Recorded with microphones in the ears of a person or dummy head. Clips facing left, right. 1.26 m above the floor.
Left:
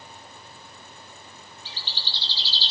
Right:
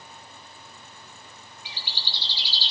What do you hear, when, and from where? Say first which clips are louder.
1.6 s a bird: right 1 dB; 15° right (ahead or behind), 1.3 m